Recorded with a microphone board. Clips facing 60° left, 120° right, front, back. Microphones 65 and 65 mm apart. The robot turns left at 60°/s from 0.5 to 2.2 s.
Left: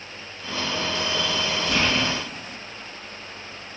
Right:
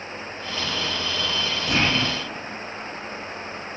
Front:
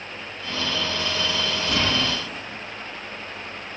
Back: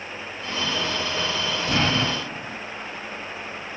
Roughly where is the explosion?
Behind.